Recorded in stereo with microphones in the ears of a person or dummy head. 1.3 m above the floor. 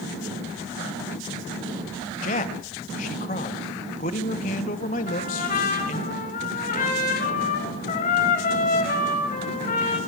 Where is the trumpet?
35° left (ahead or behind), 5 m.